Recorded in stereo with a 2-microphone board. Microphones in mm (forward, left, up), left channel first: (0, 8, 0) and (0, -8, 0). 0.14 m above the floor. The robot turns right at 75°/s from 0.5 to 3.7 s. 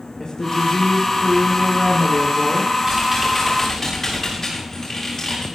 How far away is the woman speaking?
About 6 m.